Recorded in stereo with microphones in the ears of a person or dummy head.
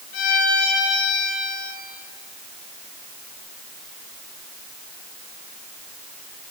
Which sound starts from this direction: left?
A violin, at 0.1 s.